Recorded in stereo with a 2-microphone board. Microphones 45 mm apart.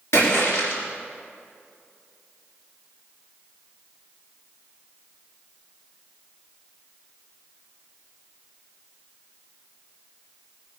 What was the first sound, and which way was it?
A splash, 70° left (ahead or behind).